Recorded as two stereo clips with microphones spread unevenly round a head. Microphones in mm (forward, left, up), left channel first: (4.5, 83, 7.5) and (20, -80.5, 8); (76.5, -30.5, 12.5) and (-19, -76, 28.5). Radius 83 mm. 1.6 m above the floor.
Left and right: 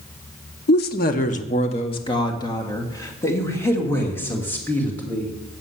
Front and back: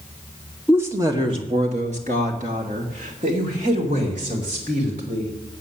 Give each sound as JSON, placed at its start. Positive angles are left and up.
{"t": 0.7, "sound": "a woman speaking", "azimuth_deg": 125, "distance_m": 0.9}